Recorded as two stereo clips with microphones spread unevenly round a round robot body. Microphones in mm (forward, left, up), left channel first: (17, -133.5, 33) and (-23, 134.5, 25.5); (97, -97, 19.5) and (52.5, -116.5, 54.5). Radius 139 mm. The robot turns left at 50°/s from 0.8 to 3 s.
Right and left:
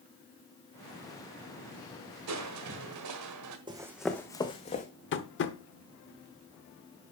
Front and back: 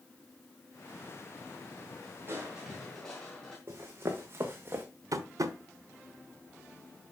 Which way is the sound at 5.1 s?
125° right.